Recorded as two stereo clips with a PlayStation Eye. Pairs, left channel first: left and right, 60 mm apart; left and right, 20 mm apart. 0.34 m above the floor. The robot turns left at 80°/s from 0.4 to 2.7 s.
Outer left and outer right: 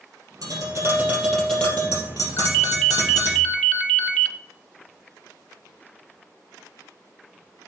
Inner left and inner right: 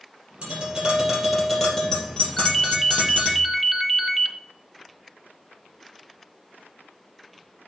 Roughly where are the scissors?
No scissors in this recording.